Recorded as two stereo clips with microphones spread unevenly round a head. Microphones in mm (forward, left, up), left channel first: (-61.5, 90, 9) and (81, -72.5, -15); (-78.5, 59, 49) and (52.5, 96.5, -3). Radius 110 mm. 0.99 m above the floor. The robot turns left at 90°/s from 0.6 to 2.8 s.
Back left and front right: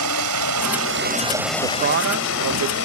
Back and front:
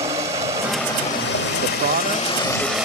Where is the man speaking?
25° left; by 2.8 s 80° right.